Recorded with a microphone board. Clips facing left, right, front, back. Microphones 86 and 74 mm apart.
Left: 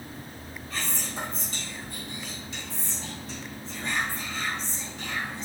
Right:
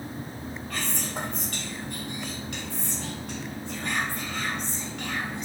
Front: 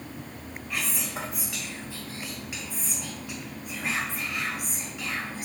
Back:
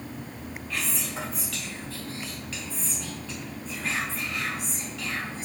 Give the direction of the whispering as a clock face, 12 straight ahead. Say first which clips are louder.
Right 1 dB, front 1 dB; 2 o'clock.